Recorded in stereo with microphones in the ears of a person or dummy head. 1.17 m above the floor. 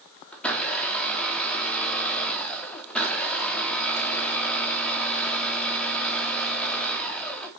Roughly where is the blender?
Centre.